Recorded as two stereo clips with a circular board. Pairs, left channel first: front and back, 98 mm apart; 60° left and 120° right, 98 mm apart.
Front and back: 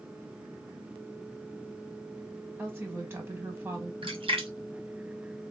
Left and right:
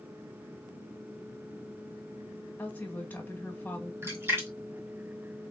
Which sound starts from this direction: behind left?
A woman speaking, at 2.6 s.